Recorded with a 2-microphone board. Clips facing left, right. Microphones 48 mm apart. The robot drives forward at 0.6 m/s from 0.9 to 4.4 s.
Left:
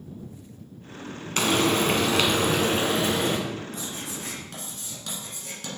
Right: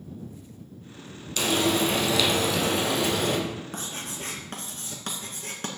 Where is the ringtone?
I don't hear a ringtone.